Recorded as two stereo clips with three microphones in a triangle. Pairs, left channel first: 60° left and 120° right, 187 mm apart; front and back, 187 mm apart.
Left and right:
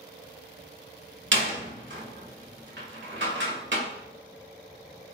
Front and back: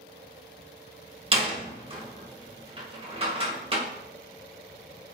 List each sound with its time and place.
1.3 s a door slam: 120° right, 2.0 m